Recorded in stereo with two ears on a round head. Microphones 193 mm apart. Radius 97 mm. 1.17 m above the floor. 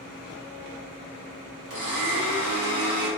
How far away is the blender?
About 1.6 m.